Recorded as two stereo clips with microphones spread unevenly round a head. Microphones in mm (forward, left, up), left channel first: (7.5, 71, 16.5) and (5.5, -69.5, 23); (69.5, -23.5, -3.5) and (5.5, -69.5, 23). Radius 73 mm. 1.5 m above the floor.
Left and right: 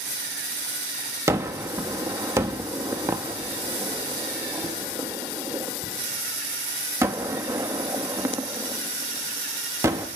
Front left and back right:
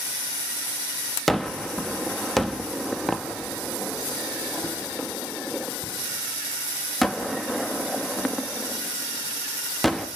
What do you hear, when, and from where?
1.3 s a gunshot: 110° right, 0.9 m